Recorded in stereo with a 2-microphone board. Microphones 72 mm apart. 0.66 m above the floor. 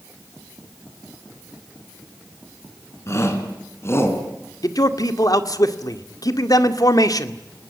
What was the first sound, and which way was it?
A shout, 45° left (ahead or behind).